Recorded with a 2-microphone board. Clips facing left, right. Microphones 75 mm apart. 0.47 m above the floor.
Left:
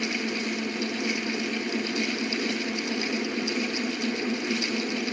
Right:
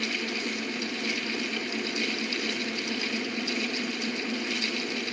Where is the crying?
I don't hear crying.